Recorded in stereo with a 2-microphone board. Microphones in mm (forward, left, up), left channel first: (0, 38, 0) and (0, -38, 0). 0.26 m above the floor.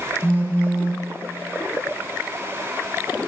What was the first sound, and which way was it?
A phone buzzing, 20° left (ahead or behind).